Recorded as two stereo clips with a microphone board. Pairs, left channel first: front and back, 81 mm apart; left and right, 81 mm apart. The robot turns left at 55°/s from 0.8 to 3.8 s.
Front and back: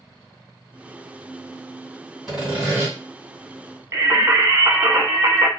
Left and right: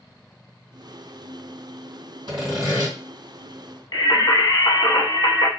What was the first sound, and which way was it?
Sawing, 90° right.